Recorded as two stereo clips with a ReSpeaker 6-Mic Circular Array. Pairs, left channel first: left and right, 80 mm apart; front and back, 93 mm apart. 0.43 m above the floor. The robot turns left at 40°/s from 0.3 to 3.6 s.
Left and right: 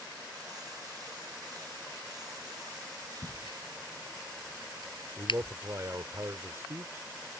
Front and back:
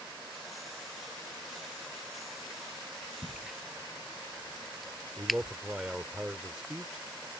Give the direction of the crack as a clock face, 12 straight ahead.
9 o'clock.